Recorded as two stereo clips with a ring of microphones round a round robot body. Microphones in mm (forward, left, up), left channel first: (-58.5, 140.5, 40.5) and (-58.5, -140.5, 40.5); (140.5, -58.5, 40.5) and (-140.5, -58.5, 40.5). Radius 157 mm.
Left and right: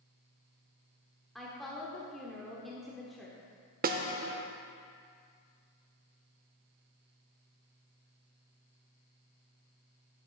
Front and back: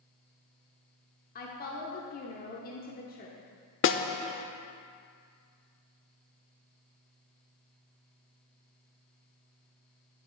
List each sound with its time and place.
1.4 s a woman speaking: straight ahead, 1.0 m
3.8 s a snare drum: 35° right, 0.6 m